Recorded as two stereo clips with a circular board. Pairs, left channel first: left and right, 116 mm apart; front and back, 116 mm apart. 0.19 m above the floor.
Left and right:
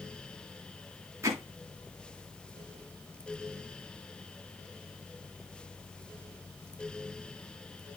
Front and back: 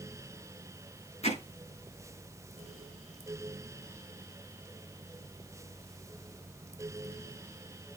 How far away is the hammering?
About 7.5 m.